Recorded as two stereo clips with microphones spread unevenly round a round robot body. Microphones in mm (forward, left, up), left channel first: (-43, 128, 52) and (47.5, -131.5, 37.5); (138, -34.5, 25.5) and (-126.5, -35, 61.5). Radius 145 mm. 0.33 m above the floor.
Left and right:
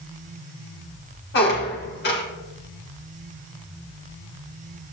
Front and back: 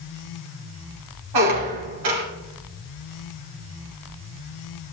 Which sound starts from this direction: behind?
A squeak, at 1.3 s.